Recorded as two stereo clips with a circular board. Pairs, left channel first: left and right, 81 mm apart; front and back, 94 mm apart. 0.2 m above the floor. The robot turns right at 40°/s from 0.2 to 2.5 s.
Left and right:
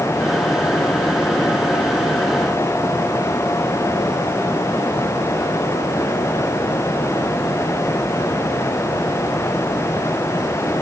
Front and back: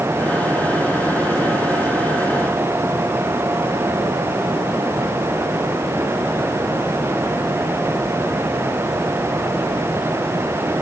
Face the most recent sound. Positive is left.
No sound to turn to.